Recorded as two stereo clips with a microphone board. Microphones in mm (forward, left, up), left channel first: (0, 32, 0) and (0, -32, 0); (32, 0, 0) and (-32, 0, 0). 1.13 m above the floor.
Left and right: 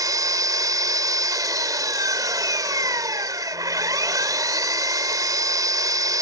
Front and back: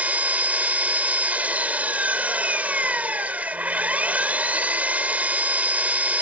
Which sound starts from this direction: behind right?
An engine running, at 0.0 s.